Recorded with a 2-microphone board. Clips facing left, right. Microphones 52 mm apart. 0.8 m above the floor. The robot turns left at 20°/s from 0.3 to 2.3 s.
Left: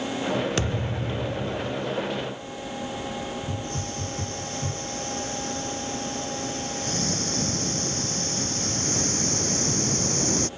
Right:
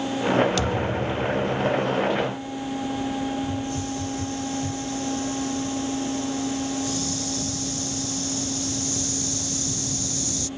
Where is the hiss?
45° left (ahead or behind).